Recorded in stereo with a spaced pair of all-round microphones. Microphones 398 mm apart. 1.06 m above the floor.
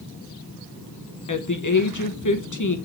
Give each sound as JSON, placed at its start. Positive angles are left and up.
{"t": 1.3, "sound": "a woman speaking", "side_deg": 50, "distance_m": 0.6}